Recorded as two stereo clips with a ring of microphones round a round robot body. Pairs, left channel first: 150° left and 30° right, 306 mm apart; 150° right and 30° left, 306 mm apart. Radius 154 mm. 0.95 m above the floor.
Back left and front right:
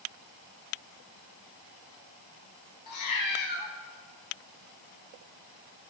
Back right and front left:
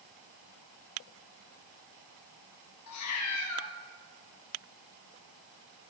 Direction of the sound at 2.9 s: 175° left.